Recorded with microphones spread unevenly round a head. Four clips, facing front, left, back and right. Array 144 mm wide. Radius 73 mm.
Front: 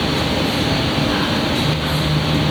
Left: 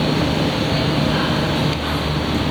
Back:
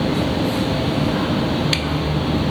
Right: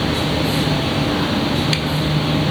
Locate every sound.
Only background noise.